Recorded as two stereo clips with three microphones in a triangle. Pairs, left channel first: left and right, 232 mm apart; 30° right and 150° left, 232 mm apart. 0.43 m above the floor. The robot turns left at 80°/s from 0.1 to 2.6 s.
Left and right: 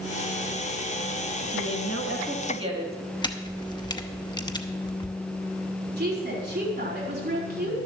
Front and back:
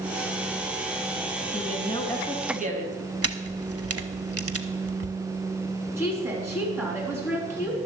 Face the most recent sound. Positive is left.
turn(degrees=-130)